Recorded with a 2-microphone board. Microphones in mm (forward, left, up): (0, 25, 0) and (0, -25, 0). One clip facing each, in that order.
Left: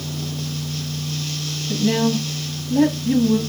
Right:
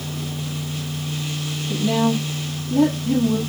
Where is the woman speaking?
30° left (ahead or behind), 2.5 m.